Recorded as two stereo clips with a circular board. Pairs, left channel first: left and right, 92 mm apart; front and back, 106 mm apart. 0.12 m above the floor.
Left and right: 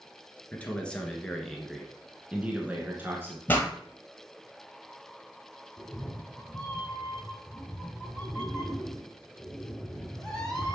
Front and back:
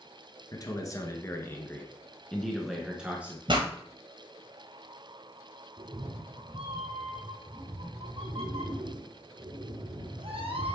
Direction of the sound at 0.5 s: 25° left.